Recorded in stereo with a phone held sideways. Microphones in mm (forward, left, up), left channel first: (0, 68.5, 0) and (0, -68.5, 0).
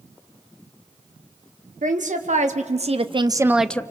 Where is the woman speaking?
70° right (ahead or behind), 1.5 m; by 3.8 s 15° left (ahead or behind), 0.5 m.